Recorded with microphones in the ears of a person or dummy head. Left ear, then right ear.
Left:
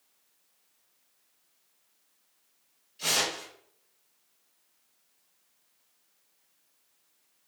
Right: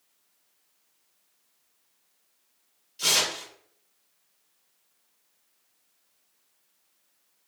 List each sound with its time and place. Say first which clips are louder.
3.0 s tearing paper: right 4 dB; 20° right (ahead or behind), 1.2 m